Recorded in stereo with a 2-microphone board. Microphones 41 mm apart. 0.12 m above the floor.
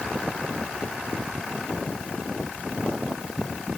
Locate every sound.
Only background noise.